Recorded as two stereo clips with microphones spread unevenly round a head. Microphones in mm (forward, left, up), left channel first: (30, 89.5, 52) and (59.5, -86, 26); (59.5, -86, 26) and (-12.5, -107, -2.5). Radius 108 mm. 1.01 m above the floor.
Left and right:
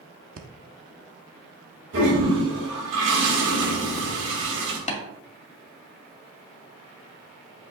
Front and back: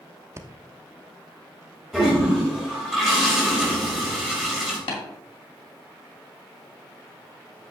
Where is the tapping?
45° left, 2 m.